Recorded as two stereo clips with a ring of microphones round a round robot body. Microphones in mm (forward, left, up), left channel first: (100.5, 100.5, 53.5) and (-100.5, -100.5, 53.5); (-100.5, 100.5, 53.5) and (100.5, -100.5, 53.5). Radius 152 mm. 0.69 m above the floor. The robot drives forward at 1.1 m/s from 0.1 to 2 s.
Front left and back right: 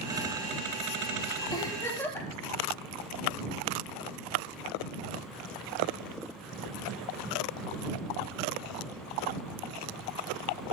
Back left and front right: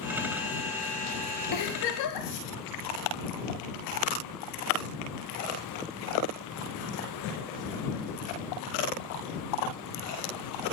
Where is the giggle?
120° left, 4 m; by 2.3 s 125° left, 4.5 m.